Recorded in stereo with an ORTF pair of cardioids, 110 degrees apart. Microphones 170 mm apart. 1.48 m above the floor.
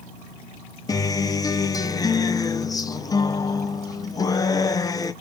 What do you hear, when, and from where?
0.9 s a guitar: 20° left, 0.7 m